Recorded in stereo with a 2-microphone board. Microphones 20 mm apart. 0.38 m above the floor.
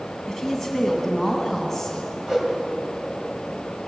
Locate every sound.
0.3 s a woman speaking: 5° left (ahead or behind), 2.5 m
2.3 s a whoosh: 20° right (ahead or behind), 2.5 m